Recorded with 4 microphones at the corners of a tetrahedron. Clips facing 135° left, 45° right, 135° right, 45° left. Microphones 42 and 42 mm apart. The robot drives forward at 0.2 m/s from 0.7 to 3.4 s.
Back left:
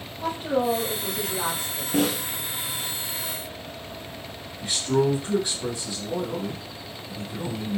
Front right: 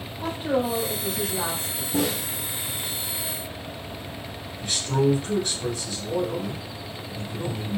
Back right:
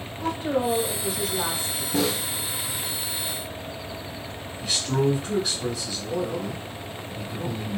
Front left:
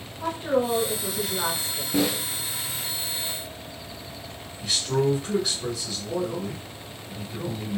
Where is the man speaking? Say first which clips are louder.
Even, even; 145° left, 1.4 m.